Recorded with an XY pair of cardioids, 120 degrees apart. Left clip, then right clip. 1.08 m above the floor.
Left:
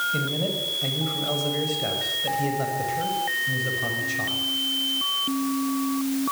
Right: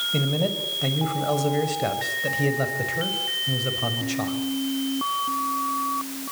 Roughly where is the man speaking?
Ahead right.